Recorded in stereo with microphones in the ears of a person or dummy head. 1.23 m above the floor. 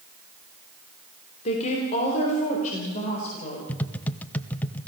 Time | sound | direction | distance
1.4 | a woman speaking | 40° left (ahead or behind) | 3.5 m
3.7 | tapping | 10° left (ahead or behind) | 0.7 m